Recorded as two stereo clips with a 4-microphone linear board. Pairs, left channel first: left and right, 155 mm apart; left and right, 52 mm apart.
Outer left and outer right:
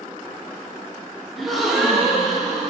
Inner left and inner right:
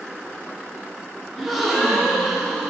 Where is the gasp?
Centre (ahead or behind), 1.0 m.